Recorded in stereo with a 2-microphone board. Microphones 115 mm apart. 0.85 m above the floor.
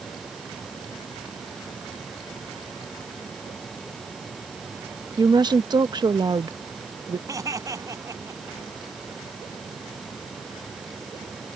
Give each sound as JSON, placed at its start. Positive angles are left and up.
{"t": 5.2, "sound": "a woman speaking", "side_deg": -40}
{"t": 7.3, "sound": "laughter", "side_deg": -30}